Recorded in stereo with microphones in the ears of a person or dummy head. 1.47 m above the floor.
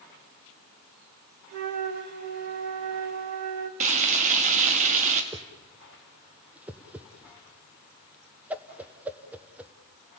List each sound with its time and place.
1.5 s a flute: 55° right (ahead or behind), 1.9 m
3.8 s frying: 40° right (ahead or behind), 2 m
5.3 s a whoosh: 5° right (ahead or behind), 1.0 m